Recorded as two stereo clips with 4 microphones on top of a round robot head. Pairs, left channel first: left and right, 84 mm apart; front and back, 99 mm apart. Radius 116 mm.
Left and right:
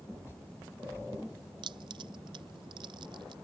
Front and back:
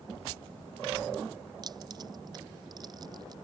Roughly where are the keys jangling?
Behind right.